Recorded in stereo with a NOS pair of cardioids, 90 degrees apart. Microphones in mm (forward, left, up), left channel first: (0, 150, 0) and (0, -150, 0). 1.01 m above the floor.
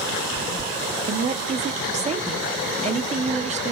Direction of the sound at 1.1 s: 25° right.